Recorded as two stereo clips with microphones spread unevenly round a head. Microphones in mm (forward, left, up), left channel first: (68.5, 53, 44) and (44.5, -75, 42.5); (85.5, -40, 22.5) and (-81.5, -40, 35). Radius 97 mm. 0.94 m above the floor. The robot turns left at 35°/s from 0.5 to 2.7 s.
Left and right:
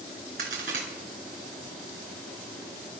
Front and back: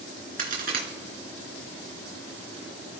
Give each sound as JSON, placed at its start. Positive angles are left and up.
{"t": 0.4, "sound": "a crack", "azimuth_deg": -140, "distance_m": 3.0}